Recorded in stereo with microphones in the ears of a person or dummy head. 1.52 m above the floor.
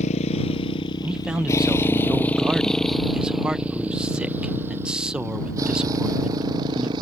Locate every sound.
0.0 s a motorcycle: 35° left (ahead or behind); by 7.0 s 25° right (ahead or behind)
1.0 s a man speaking: 10° right (ahead or behind)